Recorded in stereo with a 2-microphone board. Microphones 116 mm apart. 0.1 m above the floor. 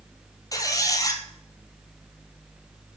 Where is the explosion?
No explosion in this recording.